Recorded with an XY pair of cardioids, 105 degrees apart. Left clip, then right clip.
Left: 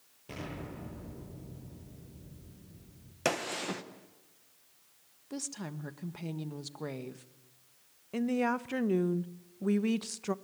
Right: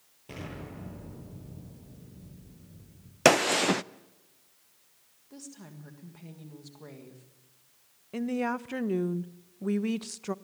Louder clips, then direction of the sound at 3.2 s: Right 11 dB; 65° right.